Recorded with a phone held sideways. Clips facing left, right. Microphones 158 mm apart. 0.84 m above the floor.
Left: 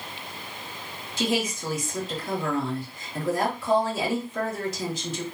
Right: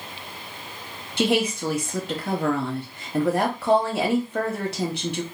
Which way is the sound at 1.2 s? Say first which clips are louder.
Right 5 dB; 65° right (ahead or behind).